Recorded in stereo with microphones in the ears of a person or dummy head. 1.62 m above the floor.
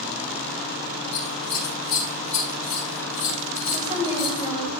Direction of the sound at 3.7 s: 25° right (ahead or behind).